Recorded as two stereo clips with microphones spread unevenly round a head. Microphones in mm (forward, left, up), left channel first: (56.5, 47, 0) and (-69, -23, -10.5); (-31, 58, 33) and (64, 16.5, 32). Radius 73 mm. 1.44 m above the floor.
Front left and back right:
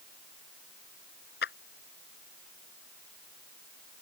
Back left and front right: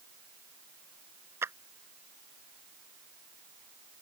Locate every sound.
1.4 s a clap: 40° left